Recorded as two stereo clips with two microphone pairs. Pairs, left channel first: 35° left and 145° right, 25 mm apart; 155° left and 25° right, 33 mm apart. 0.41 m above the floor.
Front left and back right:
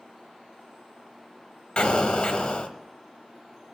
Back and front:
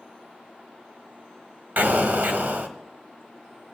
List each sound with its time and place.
1.8 s an explosion: straight ahead, 1.1 m